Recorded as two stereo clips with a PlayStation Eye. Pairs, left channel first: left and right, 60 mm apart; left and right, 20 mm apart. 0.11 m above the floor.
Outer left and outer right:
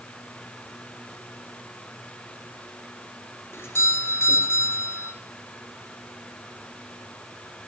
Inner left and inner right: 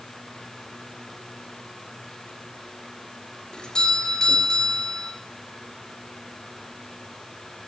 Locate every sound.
3.5 s a doorbell: 45° left (ahead or behind), 2.5 m